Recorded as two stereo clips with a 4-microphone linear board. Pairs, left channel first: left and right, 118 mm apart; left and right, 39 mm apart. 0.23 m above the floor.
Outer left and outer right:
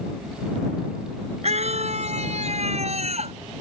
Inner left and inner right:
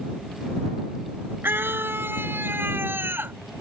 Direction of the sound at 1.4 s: 65° right (ahead or behind).